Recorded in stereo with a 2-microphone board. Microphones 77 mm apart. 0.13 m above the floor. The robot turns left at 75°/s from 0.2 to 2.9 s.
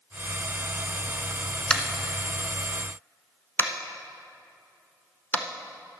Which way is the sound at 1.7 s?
10° left (ahead or behind).